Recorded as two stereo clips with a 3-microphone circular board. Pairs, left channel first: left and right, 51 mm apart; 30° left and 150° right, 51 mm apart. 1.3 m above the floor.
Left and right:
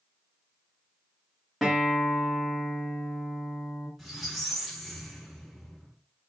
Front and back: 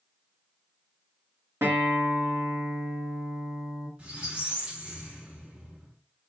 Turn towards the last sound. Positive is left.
turn(degrees=-175)